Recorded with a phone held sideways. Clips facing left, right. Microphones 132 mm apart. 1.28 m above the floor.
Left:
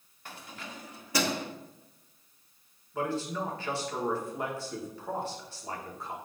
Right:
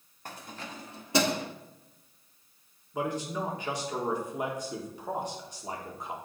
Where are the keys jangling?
45° right (ahead or behind), 1.7 m; by 1.5 s 15° right (ahead or behind), 1.4 m.